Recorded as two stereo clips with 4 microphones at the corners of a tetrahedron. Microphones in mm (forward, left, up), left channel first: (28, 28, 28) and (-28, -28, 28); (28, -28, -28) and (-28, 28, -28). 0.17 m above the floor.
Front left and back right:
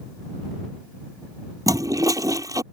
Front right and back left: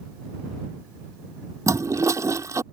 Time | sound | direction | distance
1.7 | a toilet flushing | 175° right | ?